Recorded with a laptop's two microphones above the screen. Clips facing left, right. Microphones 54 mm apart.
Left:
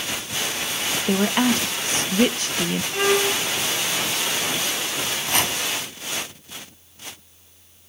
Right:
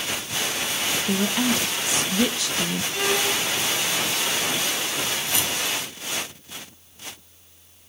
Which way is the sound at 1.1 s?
45° left (ahead or behind).